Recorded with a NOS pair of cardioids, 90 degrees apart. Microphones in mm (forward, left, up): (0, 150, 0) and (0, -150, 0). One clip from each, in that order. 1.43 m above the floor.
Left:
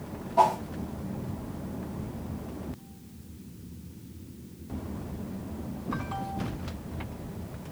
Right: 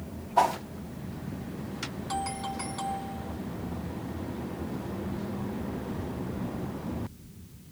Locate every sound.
0.4 s a whoosh: 50° right, 1.1 m